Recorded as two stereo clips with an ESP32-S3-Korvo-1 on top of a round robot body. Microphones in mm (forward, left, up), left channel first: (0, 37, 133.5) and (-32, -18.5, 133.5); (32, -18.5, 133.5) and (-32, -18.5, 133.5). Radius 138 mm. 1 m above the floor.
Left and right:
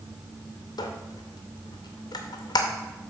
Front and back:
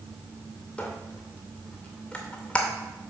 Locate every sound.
0.8 s a squeak: 80° left, 0.6 m